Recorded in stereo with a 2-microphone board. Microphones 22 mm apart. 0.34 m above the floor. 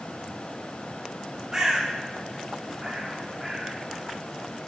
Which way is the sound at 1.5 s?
30° right (ahead or behind).